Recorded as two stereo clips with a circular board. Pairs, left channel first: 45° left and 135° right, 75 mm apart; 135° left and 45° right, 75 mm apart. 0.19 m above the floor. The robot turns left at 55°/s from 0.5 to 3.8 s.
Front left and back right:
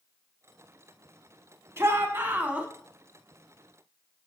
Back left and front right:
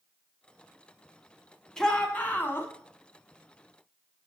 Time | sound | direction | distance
1.8 | a shout | 145° right | 1.2 m